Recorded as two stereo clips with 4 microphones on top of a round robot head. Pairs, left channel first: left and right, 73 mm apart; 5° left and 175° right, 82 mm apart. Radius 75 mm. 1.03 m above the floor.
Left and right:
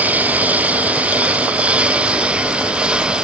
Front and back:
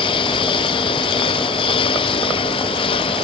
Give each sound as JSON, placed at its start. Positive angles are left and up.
{"t": 0.0, "sound": "a lawn mower", "azimuth_deg": -20}